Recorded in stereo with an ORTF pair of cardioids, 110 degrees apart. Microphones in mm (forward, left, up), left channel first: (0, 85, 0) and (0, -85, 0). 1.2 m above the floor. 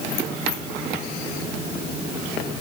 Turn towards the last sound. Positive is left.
No sound to turn to.